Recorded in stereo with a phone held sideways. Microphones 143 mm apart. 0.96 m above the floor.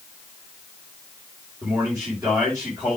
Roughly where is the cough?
I don't hear a cough.